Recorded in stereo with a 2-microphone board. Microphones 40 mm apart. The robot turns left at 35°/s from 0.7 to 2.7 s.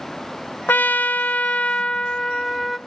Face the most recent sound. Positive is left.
turn(degrees=10)